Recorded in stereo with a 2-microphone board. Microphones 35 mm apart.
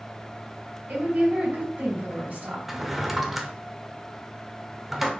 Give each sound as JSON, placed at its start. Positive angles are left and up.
{"t": 0.9, "sound": "a woman speaking", "side_deg": -55, "distance_m": 2.5}
{"t": 2.7, "sound": "a drawer", "side_deg": -5, "distance_m": 0.6}